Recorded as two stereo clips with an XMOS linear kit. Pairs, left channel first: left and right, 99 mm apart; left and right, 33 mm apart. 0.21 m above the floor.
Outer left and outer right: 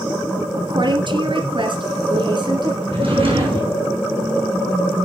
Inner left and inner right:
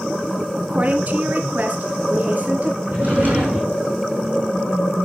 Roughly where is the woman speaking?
Right.